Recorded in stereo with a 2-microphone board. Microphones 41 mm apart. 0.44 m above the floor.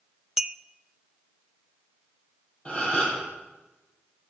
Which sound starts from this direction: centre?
A clink, at 0.4 s.